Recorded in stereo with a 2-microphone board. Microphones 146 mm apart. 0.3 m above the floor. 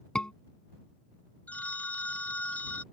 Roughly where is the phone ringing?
Centre.